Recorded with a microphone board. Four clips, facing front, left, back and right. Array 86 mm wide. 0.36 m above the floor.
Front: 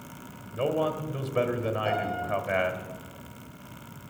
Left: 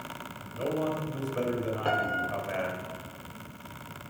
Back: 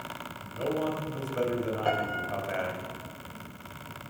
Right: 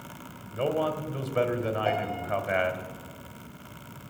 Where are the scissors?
No scissors in this recording.